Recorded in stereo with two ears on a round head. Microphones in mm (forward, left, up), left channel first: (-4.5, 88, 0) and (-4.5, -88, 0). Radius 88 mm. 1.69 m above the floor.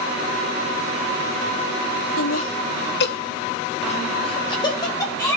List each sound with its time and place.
2.2 s laughter: 80° left, 1.1 m; by 5.4 s 15° left (ahead or behind), 2.5 m